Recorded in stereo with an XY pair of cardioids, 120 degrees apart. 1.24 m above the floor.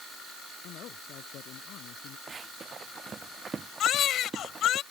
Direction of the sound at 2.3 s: 35° right.